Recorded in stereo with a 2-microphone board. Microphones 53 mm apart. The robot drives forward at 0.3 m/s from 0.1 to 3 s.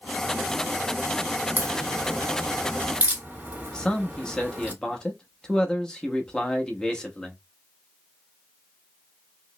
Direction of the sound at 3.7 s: 15° left (ahead or behind).